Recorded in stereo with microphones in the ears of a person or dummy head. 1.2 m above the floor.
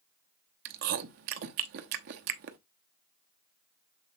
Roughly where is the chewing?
Right.